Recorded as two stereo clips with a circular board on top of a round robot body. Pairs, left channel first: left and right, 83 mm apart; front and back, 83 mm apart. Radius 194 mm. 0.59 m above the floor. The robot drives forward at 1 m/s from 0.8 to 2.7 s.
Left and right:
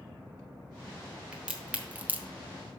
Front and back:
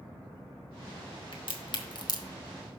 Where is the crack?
10° right, 1.7 m; by 2.3 s 25° right, 1.0 m.